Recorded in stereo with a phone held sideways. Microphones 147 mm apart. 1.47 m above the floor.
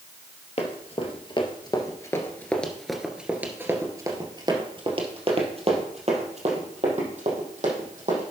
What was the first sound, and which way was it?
Running footsteps, 45° left (ahead or behind).